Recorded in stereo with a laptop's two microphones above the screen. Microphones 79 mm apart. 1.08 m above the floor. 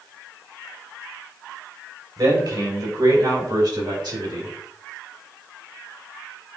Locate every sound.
2.2 s a man speaking: 65° right (ahead or behind), 4 m; by 4.5 s 70° right (ahead or behind), 6 m